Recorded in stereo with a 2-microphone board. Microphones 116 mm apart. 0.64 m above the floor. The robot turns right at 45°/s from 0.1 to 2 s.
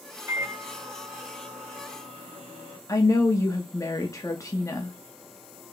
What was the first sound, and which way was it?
A microwave, 155° right.